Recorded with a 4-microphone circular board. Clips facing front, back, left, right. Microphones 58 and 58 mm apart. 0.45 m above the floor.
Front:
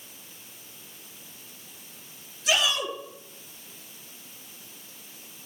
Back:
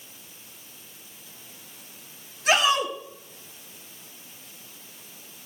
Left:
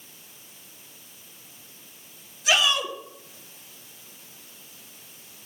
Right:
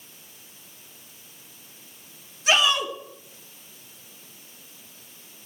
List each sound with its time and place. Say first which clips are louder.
2.5 s a shout: back 4 dB, right 1 dB; 140° right, 4.5 m